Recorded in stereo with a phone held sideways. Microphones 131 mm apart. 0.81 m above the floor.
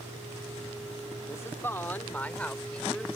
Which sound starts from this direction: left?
A woman speaking, at 1.3 s.